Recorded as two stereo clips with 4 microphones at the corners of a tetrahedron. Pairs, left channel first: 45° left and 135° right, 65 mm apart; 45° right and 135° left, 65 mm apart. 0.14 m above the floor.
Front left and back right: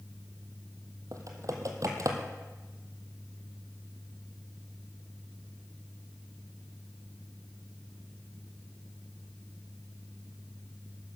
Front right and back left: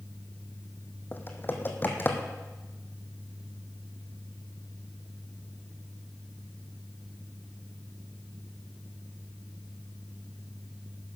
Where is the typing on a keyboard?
100° right, 1.5 m.